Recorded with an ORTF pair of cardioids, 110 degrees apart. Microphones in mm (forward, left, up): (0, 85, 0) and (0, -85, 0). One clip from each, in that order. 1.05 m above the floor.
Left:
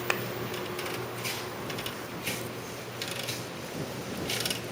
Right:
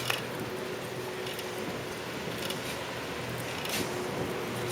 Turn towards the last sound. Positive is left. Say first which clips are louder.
# left 3 dB
turn(degrees=20)